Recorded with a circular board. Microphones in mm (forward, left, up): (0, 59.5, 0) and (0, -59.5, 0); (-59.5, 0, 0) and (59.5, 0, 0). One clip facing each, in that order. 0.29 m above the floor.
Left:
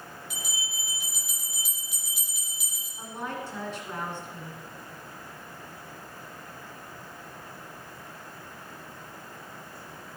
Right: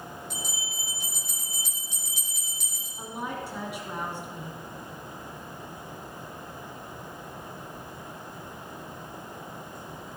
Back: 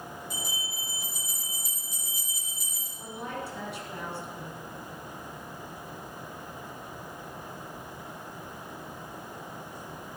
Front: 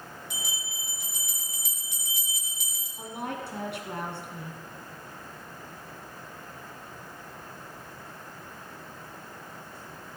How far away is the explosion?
No explosion in this recording.